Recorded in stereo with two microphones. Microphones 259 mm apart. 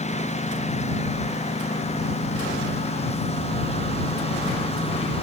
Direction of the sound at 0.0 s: 25° left (ahead or behind).